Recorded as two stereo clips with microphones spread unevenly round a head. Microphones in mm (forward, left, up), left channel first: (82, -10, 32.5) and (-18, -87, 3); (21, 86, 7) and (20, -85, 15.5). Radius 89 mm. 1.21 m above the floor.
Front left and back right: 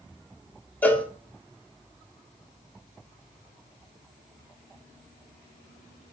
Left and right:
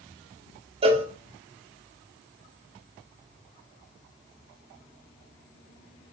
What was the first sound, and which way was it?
A cowbell, 35° right.